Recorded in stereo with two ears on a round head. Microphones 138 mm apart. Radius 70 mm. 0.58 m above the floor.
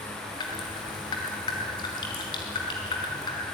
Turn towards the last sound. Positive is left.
turn(degrees=25)  # may be behind; listen again after turning